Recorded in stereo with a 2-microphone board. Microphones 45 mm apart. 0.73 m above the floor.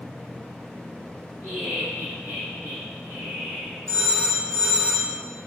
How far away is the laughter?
About 1.5 m.